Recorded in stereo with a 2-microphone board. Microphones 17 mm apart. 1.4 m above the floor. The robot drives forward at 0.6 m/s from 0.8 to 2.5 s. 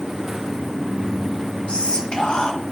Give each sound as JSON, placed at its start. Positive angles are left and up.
{"t": 1.7, "sound": "whispering", "side_deg": 80, "distance_m": 1.4}